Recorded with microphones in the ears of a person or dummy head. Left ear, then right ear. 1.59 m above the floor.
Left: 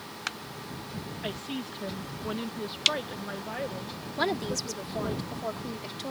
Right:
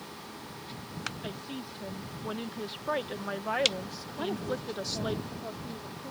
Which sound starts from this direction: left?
A woman speaking, at 4.2 s.